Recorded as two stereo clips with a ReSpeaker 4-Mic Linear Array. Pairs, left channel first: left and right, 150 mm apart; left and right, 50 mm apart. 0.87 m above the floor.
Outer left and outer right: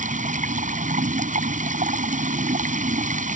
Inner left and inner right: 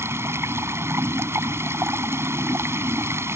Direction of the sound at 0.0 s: 60° right (ahead or behind).